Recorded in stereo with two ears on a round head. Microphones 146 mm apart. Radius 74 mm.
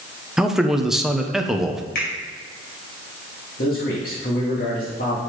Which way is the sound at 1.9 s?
55° left (ahead or behind).